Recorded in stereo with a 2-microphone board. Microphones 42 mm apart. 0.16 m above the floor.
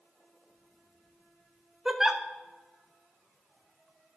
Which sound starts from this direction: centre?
A giggle, at 1.9 s.